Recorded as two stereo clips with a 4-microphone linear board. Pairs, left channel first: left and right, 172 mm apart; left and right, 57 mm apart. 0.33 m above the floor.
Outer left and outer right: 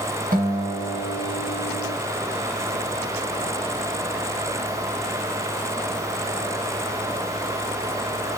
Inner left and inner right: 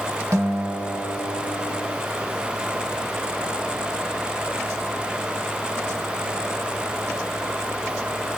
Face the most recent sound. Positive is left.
turn(degrees=-55)  # may be behind; listen again after turning